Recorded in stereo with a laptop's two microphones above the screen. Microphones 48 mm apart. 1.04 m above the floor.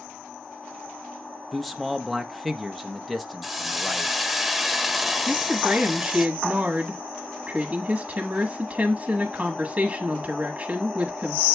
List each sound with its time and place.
1.5 s a man speaking: 5° left (ahead or behind), 0.7 m
3.4 s a hiss: centre (ahead or behind), 0.8 m
5.3 s a woman speaking: 20° right (ahead or behind), 1.3 m